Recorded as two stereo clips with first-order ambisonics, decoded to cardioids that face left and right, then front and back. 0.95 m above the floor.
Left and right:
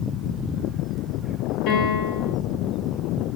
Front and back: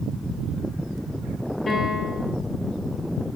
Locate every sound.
1.7 s a piano: 80° left, 2 m